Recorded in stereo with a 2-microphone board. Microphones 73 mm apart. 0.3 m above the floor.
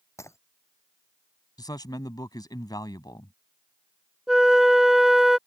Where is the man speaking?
60° left (ahead or behind).